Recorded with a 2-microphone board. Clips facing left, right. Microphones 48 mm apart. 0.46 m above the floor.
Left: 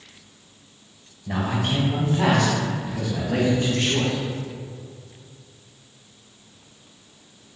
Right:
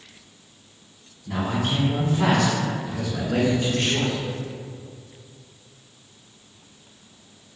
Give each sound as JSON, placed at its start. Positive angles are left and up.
{"t": 1.3, "sound": "a man speaking", "side_deg": 60, "distance_m": 1.5}